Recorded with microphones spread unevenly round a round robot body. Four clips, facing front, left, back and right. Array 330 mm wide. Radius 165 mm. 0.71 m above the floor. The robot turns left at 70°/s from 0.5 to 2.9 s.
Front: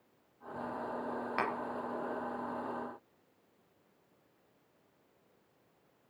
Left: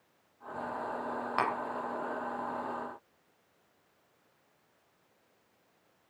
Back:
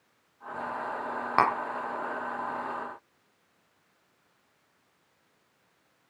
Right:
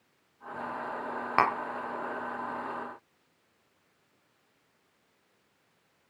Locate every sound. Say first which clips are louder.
1.4 s tapping: right 6 dB, back 12 dB; 150° right, 0.8 m; by 1.6 s 165° right, 0.8 m